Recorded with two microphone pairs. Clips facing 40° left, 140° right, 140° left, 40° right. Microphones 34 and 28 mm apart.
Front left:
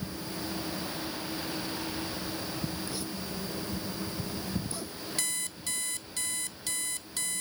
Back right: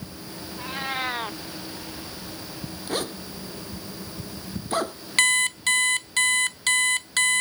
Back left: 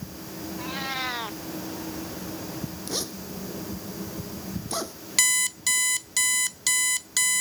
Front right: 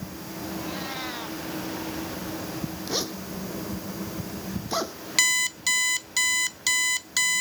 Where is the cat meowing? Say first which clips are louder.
Back right 7 dB, back left 5 dB; 155° right.